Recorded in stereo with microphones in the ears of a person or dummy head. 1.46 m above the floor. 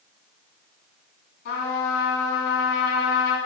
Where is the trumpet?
65° left (ahead or behind), 3.5 m.